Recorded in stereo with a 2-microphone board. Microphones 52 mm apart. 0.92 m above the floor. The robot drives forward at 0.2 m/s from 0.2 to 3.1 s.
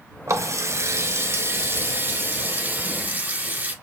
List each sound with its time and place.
0.3 s a running tap: 70° right (ahead or behind), 0.5 m; by 3.7 s 35° right (ahead or behind), 0.9 m